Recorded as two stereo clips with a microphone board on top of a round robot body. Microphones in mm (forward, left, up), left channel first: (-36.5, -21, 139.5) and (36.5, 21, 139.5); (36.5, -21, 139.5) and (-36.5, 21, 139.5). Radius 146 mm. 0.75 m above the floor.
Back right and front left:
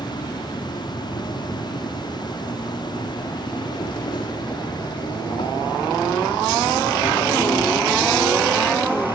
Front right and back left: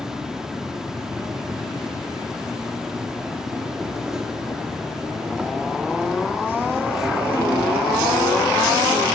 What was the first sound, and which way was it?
An insect, 130° right.